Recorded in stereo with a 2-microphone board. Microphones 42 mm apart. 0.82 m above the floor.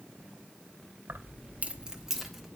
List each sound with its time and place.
1.1 s keys jangling: 75° right (ahead or behind), 1.1 m; by 2.5 s 5° left (ahead or behind), 1.7 m